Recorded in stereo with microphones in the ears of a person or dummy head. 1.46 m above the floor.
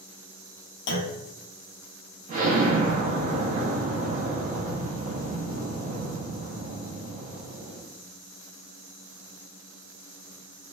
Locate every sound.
0.9 s a clunk: 70° left (ahead or behind), 0.6 m
2.3 s an explosion: 40° right (ahead or behind), 0.7 m